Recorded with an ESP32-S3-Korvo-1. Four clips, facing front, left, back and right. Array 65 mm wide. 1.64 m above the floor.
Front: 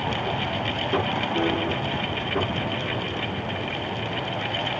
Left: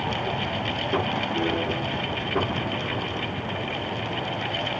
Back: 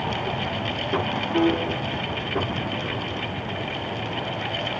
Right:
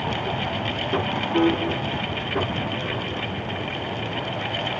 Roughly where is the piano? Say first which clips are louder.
Right 8 dB, back 5 dB; behind right.